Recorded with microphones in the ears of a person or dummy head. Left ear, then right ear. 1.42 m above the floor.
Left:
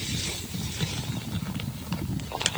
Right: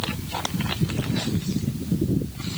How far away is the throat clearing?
No throat clearing in this recording.